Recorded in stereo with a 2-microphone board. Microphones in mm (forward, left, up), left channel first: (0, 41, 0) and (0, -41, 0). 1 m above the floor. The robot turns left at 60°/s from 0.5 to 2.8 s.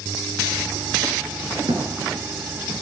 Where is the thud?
75° right (ahead or behind), 6 m; by 1.9 s 85° right, 6 m.